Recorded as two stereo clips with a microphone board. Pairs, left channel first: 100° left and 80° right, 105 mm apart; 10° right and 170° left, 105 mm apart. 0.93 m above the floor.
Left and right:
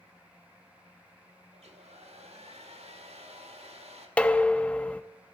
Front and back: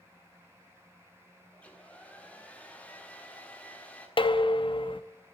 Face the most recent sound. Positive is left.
turn(degrees=20)